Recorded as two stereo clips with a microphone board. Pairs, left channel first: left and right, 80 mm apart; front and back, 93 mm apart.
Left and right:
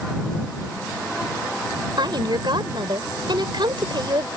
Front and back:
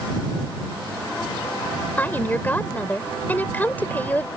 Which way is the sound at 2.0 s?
70° right.